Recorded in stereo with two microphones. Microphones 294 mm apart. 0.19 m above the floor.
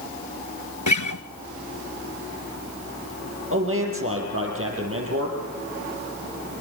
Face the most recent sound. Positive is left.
turn(degrees=-45)  # may be behind; listen again after turning